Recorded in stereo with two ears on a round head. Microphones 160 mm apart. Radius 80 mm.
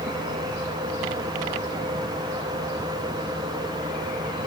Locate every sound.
Only background noise.